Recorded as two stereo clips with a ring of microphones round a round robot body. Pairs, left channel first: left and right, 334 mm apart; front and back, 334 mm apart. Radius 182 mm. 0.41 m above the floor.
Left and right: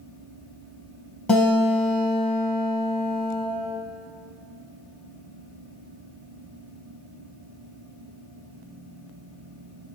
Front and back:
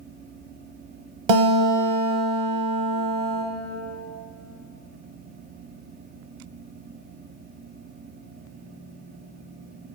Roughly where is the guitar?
Behind.